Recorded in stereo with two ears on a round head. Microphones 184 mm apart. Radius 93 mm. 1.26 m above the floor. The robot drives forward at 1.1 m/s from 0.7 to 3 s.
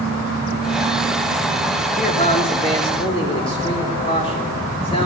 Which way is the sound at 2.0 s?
35° left (ahead or behind).